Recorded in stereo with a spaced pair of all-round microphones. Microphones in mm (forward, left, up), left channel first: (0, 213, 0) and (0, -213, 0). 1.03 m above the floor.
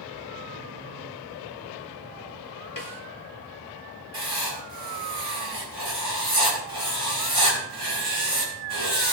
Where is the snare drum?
50° left (ahead or behind), 1.5 m.